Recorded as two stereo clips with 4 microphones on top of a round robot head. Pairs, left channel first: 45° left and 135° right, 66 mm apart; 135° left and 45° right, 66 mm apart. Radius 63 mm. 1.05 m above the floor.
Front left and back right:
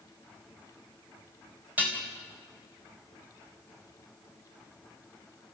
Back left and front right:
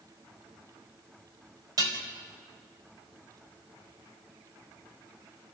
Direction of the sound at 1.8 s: 70° right.